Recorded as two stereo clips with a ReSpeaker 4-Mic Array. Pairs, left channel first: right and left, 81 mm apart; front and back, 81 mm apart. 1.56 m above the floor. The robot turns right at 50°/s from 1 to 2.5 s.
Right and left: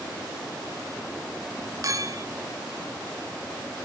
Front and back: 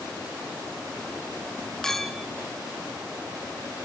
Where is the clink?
80° left, 0.7 m; by 2.3 s 100° left, 0.7 m.